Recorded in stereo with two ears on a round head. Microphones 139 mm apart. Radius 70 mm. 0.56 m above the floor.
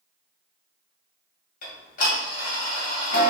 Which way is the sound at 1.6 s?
50° left (ahead or behind).